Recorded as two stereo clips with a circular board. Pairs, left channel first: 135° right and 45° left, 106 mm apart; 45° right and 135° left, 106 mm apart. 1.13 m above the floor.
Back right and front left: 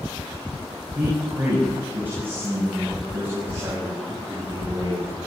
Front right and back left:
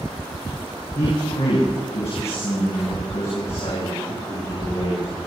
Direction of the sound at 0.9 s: 30° right.